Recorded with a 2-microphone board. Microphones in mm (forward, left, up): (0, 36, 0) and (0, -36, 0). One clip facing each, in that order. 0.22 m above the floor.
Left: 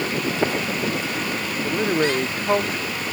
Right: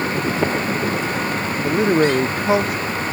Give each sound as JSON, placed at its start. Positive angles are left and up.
{"t": 1.6, "sound": "a man speaking", "side_deg": -15}